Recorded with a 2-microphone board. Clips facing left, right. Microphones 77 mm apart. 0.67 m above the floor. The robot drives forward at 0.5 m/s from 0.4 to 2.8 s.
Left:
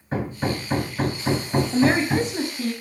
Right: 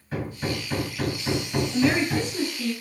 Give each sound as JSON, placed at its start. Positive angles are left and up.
{"t": 0.1, "sound": "hammering", "side_deg": 35, "distance_m": 4.0}
{"t": 1.7, "sound": "a woman speaking", "side_deg": 40, "distance_m": 5.0}